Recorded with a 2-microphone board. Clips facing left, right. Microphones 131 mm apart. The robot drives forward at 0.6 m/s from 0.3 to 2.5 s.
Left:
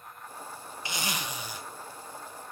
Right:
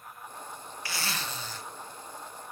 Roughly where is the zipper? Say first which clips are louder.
Left 1 dB; centre.